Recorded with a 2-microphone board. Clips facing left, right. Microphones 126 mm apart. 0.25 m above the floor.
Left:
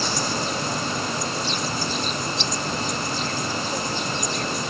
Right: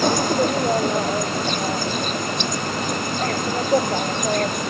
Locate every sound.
0.0 s an insect: 50° right (ahead or behind)